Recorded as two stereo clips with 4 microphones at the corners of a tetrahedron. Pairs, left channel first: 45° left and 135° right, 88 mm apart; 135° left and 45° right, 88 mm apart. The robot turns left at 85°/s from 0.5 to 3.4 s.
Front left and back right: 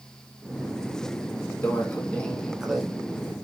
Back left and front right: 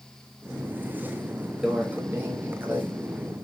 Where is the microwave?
30° left, 0.9 m; by 2.8 s 70° right, 0.9 m.